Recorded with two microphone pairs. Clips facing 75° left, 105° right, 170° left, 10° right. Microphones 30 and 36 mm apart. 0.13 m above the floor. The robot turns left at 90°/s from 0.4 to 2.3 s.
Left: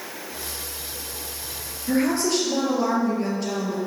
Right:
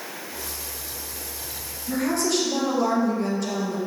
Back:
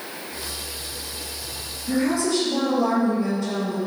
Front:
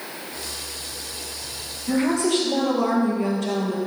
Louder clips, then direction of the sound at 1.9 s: Left 2 dB, front 1 dB; 45° left.